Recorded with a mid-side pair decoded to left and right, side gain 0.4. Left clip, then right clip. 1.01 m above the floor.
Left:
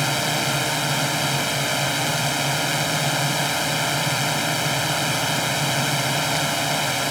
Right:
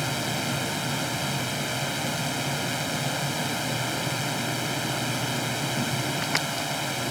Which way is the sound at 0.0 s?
50° left.